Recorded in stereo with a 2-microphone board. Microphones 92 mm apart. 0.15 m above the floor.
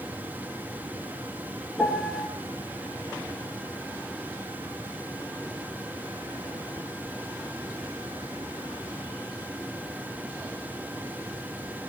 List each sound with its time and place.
1.8 s a piano: 5° left (ahead or behind), 2 m